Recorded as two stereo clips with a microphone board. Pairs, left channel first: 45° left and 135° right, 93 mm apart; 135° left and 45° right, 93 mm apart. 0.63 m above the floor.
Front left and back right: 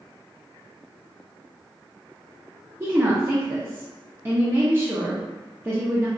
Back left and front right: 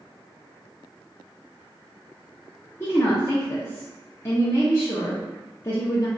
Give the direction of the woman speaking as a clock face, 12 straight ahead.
6 o'clock.